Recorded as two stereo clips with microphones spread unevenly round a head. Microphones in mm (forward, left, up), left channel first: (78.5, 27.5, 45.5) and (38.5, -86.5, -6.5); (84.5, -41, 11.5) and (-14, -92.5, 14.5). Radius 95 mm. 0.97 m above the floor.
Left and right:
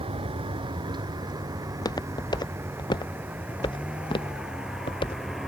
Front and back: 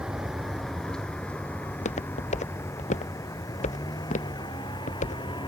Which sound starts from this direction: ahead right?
A vehicle, at 0.0 s.